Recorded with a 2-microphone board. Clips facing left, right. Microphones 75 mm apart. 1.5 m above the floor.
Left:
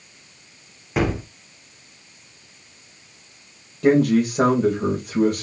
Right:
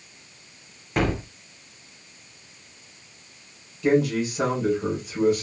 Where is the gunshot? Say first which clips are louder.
Left 2 dB; 5° left (ahead or behind), 0.8 m.